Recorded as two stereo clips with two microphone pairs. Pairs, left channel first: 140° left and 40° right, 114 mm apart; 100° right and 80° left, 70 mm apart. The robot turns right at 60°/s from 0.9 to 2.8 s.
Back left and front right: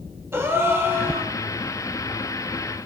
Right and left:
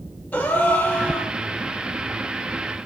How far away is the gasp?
About 0.5 m.